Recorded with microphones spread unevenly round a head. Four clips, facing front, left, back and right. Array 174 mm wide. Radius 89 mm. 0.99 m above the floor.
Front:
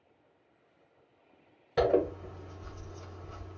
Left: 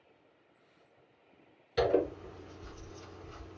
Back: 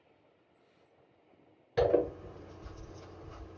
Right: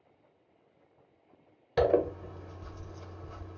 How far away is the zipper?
About 1.0 m.